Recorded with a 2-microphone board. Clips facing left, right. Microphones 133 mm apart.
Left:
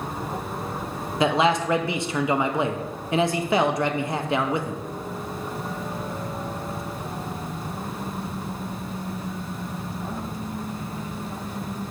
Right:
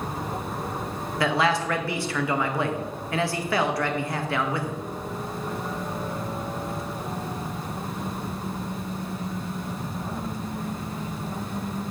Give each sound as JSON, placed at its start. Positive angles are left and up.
{"t": 1.2, "sound": "a man speaking", "side_deg": 20, "distance_m": 0.5}